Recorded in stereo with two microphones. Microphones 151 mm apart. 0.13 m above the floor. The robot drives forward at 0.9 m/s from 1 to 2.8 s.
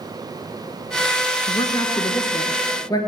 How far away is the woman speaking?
About 1.4 m.